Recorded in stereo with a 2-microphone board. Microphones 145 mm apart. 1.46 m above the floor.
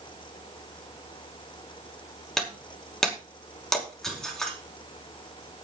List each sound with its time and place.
2.4 s breaking glass: 5° left (ahead or behind), 5 m